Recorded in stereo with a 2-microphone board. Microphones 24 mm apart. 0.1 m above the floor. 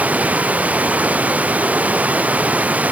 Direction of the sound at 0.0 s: 75° right (ahead or behind).